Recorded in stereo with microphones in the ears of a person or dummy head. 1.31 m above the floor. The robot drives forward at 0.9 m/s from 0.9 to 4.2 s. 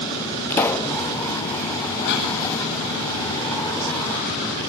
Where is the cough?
65° left (ahead or behind), 9.5 m.